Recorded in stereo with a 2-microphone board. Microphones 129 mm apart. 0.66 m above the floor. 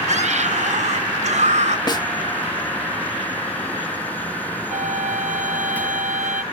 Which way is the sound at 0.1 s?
70° right (ahead or behind).